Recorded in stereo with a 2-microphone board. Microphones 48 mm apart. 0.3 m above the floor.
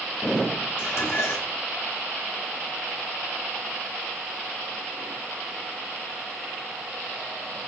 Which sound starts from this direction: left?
Dishes clattering, at 0.8 s.